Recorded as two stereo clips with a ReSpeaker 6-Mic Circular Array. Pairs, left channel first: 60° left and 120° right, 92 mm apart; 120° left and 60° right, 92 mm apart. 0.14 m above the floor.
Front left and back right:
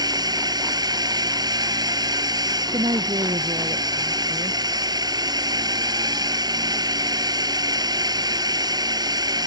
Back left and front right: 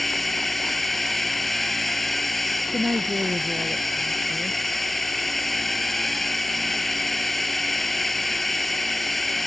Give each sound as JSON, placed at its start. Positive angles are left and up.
{"t": 0.0, "sound": "a drone", "azimuth_deg": -155}
{"t": 2.7, "sound": "a woman speaking", "azimuth_deg": -130}